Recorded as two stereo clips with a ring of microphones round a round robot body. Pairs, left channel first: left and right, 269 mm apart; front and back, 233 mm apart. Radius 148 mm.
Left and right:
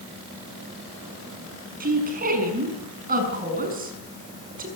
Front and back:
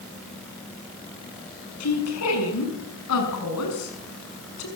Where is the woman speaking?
30° right, 6.5 m.